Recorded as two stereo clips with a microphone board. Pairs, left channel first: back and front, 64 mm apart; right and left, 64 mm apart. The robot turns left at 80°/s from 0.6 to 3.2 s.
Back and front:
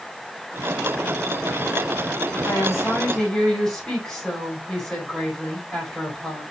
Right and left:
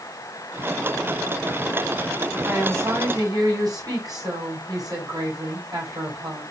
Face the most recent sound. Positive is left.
turn(degrees=100)